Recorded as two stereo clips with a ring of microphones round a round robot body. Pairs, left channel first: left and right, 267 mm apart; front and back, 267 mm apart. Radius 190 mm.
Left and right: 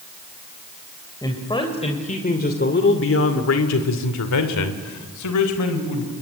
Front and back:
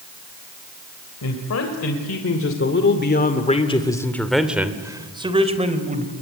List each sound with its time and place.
1.2 s a man speaking: 15° left, 3.5 m; by 6.1 s 120° left, 3.5 m